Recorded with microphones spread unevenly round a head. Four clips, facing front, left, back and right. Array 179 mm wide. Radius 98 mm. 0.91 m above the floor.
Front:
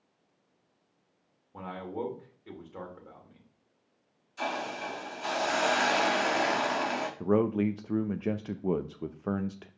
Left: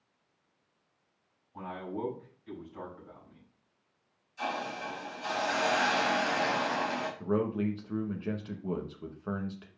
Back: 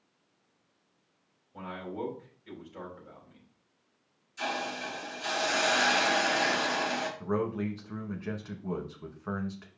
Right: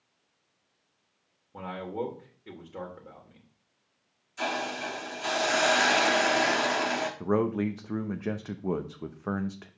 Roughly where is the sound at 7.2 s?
Ahead right.